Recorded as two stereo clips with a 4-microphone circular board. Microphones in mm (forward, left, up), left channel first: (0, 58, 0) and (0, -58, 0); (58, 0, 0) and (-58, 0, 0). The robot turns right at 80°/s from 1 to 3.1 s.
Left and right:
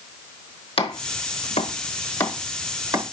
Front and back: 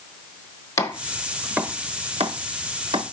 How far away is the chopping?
About 1.0 m.